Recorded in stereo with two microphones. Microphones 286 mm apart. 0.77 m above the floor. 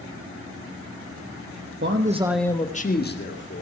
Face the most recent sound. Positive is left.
turn(degrees=45)  # may be behind; listen again after turning